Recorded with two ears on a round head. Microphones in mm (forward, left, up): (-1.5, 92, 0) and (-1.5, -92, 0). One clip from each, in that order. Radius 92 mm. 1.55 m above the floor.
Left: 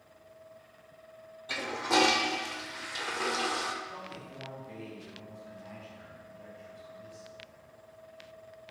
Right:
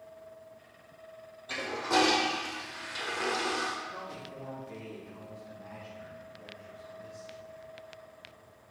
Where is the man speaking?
30° left (ahead or behind), 2.5 m.